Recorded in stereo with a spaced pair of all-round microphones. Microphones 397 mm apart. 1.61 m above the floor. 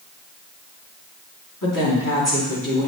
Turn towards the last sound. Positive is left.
turn(degrees=45)  # may be behind; listen again after turning